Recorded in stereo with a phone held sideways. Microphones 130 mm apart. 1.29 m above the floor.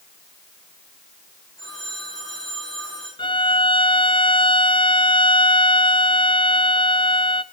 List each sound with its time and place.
1.6 s a phone ringing: 25° left (ahead or behind), 9.5 m
3.2 s a violin: 40° left (ahead or behind), 0.7 m